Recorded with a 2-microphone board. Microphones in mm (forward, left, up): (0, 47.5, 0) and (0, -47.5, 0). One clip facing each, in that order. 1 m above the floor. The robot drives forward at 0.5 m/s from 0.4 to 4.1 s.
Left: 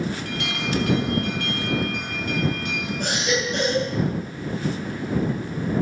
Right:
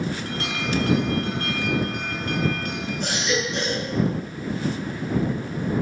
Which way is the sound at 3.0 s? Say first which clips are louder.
Left 1 dB; 50° left (ahead or behind).